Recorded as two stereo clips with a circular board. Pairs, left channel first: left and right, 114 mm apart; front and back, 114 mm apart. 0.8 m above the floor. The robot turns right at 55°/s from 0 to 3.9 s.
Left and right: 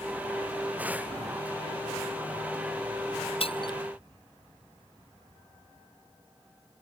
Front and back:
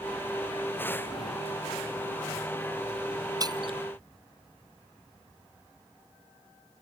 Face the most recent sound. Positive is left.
turn(degrees=150)